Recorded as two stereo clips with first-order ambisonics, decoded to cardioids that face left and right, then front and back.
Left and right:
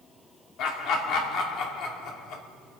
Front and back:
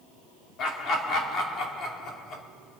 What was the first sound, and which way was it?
Laughter, 50° left.